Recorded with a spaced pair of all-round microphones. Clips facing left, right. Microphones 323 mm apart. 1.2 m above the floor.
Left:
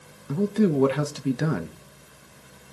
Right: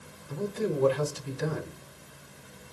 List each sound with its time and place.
0.3 s a man speaking: 80° left, 1.3 m